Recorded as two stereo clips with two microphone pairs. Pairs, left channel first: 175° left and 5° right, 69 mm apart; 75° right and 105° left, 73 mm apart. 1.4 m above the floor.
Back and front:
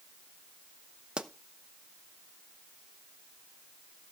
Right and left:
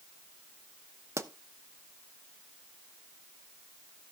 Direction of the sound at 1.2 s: 65° left.